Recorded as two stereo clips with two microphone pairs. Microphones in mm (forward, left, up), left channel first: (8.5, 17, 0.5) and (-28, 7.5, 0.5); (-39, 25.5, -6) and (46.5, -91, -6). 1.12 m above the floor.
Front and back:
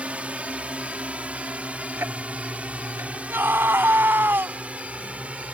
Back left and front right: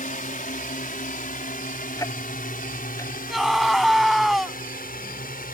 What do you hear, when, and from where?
0.0 s a drone: 145° left; by 5.5 s 140° left
2.0 s ticking: 165° right
3.3 s a scream: 145° right